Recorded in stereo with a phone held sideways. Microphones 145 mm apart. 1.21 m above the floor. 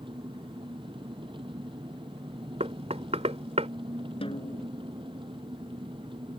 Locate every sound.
0.0 s an engine running: 35° right (ahead or behind)
2.6 s knocking: 50° right (ahead or behind)
4.2 s a snare drum: 40° left (ahead or behind)